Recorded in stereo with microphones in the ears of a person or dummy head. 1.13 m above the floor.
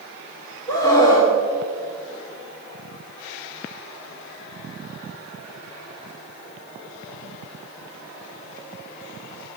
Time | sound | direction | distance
0.7 | a scream | 20° left (ahead or behind) | 2.5 m